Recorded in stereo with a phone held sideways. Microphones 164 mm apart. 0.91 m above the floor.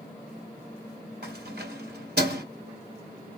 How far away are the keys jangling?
About 1.8 m.